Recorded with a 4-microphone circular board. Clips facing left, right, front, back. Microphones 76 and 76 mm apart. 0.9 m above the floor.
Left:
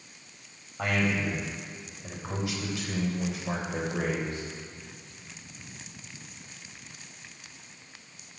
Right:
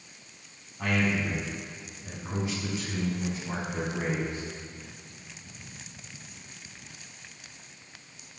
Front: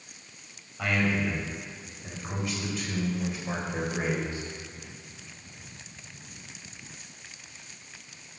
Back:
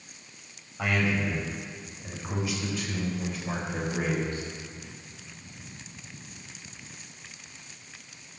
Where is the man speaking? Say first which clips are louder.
Even, even; 105° left, 5 m; by 4.4 s 75° left, 4 m.